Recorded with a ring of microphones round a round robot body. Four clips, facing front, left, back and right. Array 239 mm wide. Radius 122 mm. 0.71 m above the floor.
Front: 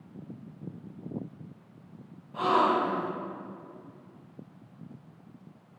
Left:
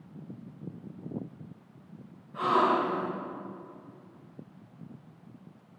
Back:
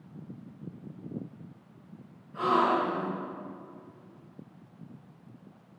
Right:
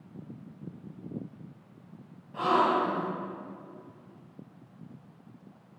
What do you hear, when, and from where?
2.3 s a gasp: 35° right, 2.5 m